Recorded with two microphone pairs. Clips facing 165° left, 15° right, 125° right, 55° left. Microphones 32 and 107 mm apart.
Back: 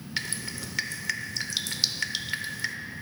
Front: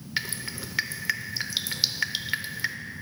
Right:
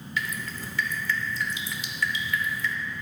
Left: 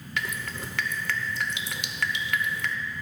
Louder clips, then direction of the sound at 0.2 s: Front 2 dB, even; 60° left.